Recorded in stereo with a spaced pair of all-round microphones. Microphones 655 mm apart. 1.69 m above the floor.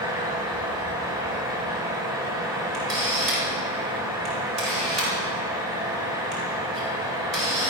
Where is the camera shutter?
65° right (ahead or behind), 9 m.